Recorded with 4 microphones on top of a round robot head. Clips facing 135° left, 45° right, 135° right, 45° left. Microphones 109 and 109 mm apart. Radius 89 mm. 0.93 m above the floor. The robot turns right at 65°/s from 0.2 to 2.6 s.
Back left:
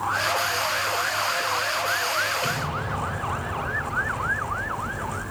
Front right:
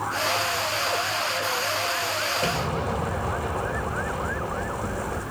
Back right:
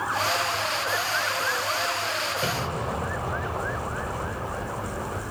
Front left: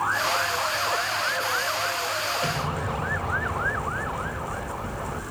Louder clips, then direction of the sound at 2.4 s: Front right 2 dB, even; 90° right.